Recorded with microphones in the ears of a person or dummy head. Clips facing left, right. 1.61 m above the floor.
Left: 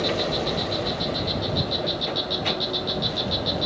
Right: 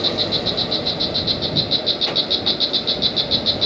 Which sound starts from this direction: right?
An insect, at 0.0 s.